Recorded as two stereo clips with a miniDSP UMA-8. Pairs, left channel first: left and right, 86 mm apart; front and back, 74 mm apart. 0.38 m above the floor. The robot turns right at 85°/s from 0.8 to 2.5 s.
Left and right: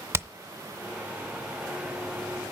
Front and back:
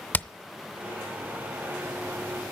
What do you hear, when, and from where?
0.1 s hammering: 50° right, 0.5 m